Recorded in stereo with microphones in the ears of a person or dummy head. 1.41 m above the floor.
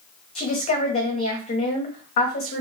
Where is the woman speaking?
35° left (ahead or behind), 0.9 m.